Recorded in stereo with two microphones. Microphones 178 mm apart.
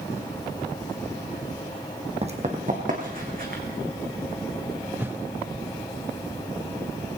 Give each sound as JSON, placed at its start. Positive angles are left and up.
{"t": 2.2, "sound": "running footsteps", "side_deg": -35, "distance_m": 1.8}
{"t": 5.0, "sound": "a whoosh", "side_deg": -10, "distance_m": 0.5}